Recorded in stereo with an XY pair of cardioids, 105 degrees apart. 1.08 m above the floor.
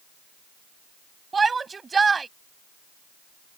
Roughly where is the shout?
Ahead right.